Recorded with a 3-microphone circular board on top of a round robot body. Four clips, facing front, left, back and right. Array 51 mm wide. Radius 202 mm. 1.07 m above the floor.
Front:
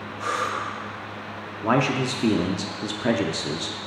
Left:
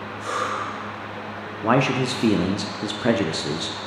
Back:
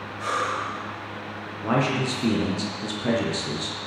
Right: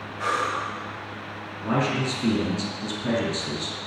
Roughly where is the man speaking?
Ahead left.